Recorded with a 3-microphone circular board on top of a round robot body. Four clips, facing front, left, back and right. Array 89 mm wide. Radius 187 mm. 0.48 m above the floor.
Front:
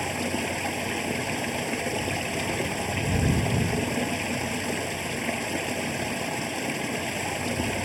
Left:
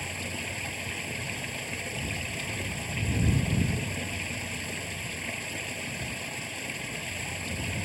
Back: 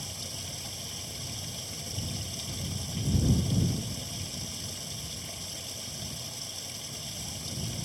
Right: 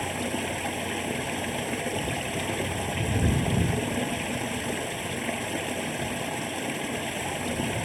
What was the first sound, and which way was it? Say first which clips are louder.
Running water: right 8 dB, front 16 dB; 40° right.